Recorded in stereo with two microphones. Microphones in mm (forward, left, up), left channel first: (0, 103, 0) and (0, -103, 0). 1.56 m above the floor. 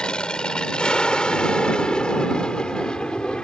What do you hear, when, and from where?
0.0 s an aircraft: 5° left (ahead or behind)